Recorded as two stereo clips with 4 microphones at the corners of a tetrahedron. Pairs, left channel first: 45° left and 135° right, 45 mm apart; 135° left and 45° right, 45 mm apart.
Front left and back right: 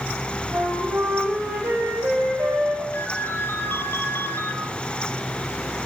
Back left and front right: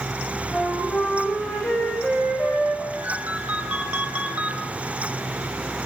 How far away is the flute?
About 9 m.